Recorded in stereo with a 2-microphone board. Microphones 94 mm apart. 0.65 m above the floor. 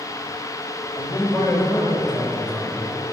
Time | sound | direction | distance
0.9 | a man speaking | 30° left (ahead or behind) | 3 m